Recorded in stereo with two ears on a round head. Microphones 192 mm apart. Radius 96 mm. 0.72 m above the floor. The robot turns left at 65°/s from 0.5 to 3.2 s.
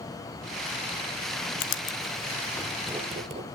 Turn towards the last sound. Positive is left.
turn(degrees=-30)  # may be behind; listen again after turning